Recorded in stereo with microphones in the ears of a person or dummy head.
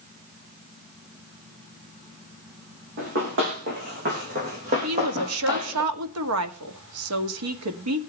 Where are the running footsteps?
50° right (ahead or behind), 4.5 m; by 5.8 s 10° right (ahead or behind), 1.7 m.